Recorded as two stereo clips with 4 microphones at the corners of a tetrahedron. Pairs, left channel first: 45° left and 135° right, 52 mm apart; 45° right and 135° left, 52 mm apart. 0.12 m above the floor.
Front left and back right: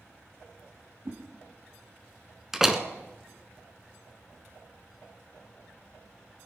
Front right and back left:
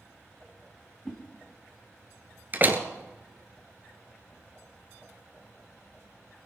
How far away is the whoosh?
About 3 m.